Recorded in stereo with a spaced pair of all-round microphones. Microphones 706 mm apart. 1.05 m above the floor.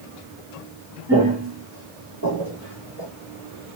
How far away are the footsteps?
About 1.4 m.